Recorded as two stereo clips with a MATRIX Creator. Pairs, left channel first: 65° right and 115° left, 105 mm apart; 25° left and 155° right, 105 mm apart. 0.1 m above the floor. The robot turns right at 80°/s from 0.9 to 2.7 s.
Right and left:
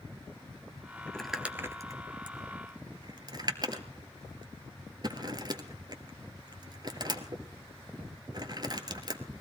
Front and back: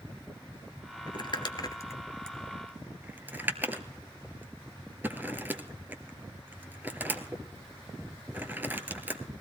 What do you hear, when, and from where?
1.1 s crumpling: 10° left, 1.2 m; by 9.4 s 140° left, 1.2 m